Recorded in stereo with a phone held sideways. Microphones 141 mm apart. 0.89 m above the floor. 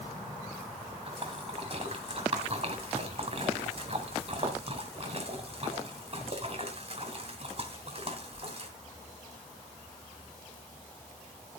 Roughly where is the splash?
Right.